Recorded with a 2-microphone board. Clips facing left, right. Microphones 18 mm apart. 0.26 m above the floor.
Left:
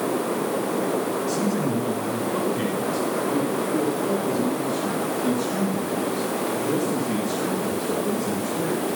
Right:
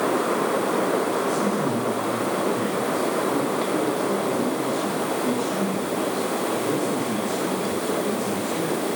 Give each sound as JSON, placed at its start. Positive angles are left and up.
{"t": 1.3, "sound": "a man speaking", "side_deg": 50, "distance_m": 3.0}